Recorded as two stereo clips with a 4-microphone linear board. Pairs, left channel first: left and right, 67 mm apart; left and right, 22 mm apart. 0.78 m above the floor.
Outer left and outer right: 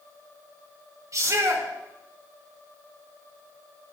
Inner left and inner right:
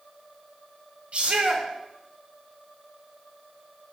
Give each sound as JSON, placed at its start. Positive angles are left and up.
{"t": 1.1, "sound": "a shout", "side_deg": -60, "distance_m": 4.0}